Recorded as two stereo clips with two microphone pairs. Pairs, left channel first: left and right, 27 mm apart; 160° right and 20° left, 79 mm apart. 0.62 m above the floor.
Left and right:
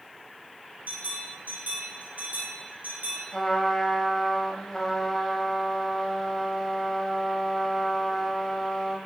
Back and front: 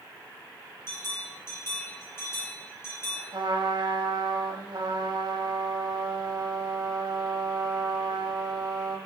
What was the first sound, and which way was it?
A bell, 100° right.